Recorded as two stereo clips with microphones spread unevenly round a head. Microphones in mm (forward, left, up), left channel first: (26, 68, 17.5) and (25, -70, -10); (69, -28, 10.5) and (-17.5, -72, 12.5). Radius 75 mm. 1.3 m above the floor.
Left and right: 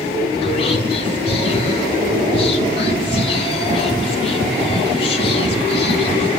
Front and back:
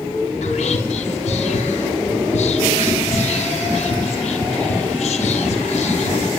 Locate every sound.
0.4 s whispering: 35° left, 1.8 m